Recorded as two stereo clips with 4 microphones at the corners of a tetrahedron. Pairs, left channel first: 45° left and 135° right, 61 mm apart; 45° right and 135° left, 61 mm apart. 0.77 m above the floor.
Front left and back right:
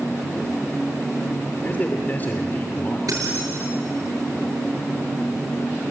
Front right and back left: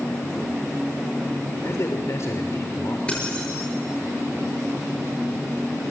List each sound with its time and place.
1.6 s a man speaking: 10° right, 2.5 m
3.1 s keys jangling: 115° right, 8.5 m